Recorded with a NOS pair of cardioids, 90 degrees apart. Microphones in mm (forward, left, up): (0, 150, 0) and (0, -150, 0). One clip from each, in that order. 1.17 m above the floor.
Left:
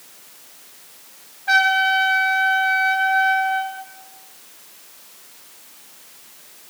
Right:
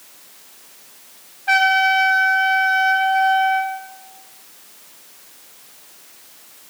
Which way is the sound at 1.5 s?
10° right.